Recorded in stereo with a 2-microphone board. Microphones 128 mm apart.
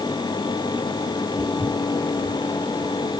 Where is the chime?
I don't hear a chime.